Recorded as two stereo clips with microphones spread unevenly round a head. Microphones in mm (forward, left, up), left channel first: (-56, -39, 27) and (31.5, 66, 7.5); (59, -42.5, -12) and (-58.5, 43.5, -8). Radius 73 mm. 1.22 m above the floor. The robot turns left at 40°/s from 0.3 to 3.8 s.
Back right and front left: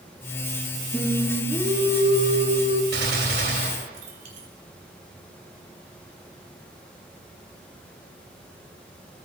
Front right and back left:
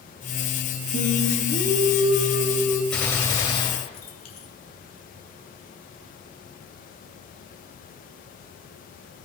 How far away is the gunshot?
About 1.7 m.